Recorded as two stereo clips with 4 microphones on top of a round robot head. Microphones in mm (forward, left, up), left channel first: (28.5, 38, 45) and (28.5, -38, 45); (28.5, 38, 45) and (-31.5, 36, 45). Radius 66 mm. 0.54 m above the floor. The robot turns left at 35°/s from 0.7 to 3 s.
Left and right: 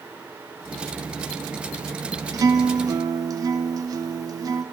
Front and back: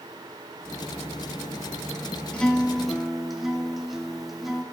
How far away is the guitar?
About 0.6 m.